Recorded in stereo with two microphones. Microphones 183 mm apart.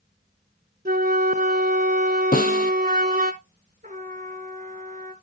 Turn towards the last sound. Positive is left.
turn(degrees=-45)  # may be behind; listen again after turning